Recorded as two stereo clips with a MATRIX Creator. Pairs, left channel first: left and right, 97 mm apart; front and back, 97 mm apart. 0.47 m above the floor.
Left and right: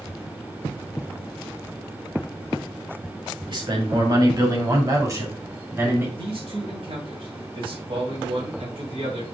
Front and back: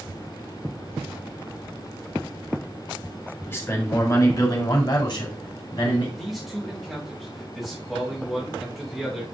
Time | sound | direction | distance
3.5 | a man speaking | 65° right | 2 m
6.2 | a man speaking | 90° right | 2.5 m